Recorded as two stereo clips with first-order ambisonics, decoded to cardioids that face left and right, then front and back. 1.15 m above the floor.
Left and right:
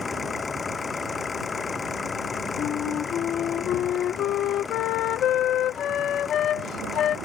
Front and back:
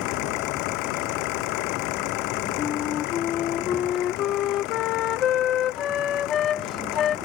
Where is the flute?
45° left.